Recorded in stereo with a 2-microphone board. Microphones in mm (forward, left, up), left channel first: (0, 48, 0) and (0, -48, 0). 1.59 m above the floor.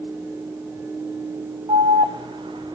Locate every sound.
1.7 s an alarm: 55° right (ahead or behind), 0.8 m